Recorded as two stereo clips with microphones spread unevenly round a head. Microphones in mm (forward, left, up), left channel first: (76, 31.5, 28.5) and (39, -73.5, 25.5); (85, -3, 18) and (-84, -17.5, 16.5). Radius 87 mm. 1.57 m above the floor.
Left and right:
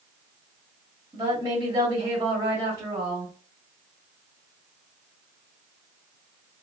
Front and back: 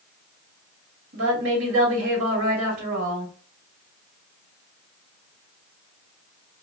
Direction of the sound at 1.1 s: 175° right.